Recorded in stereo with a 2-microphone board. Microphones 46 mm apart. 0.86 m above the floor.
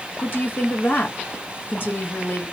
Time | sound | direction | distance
0.2 | a woman speaking | 50° left (ahead or behind) | 1.4 m